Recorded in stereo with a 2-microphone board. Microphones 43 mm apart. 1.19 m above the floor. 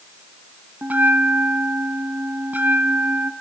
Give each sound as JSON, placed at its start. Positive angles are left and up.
{"t": 0.8, "sound": "a bell", "side_deg": -40, "distance_m": 1.7}